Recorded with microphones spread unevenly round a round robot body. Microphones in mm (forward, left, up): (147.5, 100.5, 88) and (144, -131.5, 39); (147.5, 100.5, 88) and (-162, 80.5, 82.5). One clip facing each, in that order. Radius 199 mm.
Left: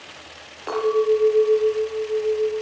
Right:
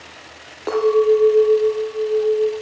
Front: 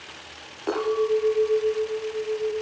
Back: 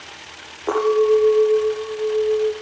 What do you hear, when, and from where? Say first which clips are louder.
0.7 s a clink: right 4 dB, back 7 dB; 60° right, 7 m